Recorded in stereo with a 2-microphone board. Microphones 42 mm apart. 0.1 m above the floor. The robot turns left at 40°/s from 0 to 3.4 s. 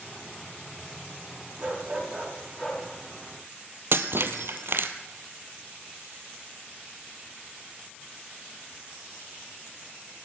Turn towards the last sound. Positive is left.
turn(degrees=-65)  # may be behind; listen again after turning